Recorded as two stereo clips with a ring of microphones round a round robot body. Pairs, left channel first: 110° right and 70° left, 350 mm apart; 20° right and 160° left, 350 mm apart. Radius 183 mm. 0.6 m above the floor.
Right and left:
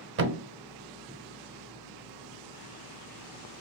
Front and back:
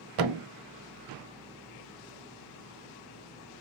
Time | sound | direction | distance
0.2 | a thud | 125° left | 0.7 m